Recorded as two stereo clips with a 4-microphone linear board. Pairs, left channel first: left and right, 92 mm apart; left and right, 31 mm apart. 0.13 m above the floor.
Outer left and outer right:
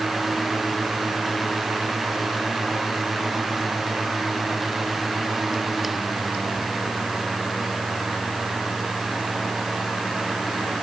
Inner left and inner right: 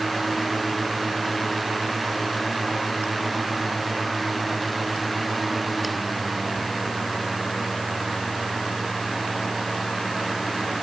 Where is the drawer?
No drawer in this recording.